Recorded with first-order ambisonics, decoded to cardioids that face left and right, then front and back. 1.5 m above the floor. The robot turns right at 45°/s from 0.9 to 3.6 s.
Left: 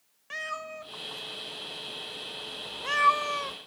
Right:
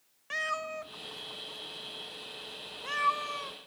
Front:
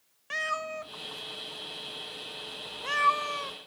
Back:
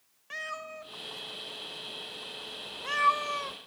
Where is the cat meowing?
20° right, 0.8 m; by 3.6 s 100° left, 0.8 m.